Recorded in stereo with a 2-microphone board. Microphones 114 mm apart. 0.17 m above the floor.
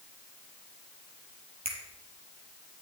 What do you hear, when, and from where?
1.6 s a finger snap: 75° right (ahead or behind), 5 m